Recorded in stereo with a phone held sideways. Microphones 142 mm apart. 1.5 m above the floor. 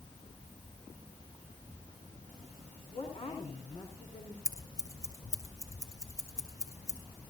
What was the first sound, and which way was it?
A woman speaking, 35° left (ahead or behind).